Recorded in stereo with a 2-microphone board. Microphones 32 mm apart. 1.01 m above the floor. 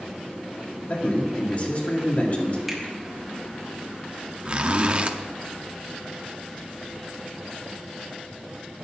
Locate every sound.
0.9 s a man speaking: 45° left (ahead or behind), 2.0 m
2.7 s a finger snap: 10° right (ahead or behind), 1.8 m
4.5 s a zipper: 35° right (ahead or behind), 0.5 m